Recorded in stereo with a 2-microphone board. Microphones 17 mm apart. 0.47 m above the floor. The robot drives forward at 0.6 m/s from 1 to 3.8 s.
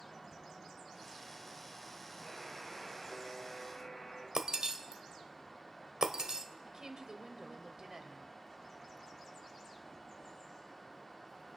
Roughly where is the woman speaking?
Right.